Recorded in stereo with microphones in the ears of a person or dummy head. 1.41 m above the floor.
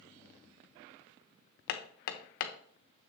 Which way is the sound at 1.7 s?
60° left (ahead or behind).